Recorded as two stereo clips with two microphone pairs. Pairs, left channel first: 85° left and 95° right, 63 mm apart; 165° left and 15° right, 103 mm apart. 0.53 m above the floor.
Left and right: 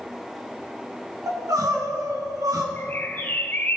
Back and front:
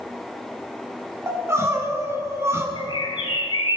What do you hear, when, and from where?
1.3 s crying: 80° right, 1.3 m
2.8 s a bird: 135° left, 1.1 m